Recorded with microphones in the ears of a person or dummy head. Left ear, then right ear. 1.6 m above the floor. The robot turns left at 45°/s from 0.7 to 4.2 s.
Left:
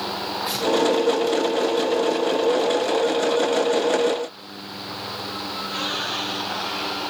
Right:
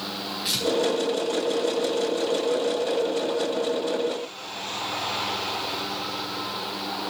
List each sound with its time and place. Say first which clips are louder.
0.5 s tearing paper: right 2 dB; 55° right (ahead or behind), 4.5 m